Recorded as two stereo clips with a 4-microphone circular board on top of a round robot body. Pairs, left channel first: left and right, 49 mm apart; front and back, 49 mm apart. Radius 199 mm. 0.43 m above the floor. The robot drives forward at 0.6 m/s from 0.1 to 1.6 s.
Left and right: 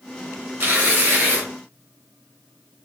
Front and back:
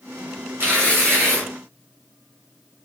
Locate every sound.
0.6 s tearing paper: 135° right, 2.5 m; by 1.5 s 140° right, 3 m